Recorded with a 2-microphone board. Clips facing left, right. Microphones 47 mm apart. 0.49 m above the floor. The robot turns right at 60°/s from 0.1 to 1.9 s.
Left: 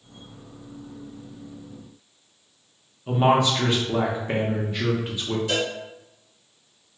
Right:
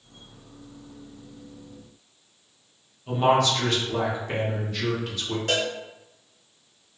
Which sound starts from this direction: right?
A cowbell, at 5.5 s.